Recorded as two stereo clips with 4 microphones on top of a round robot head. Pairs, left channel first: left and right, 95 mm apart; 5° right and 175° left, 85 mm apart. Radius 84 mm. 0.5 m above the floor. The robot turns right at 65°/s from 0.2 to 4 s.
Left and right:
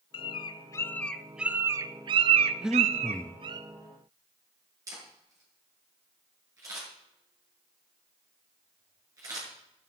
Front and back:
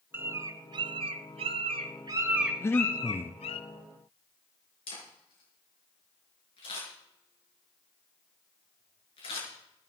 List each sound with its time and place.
0.1 s a bird: 110° left, 0.6 m; by 3.6 s 25° right, 0.6 m
2.6 s breathing: 20° right, 0.7 m; by 3.4 s 35° left, 0.7 m
4.9 s a camera shutter: 30° right, 7.5 m